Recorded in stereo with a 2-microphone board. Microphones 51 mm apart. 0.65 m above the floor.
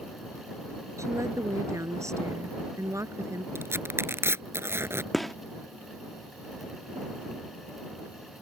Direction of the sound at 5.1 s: 5° left (ahead or behind).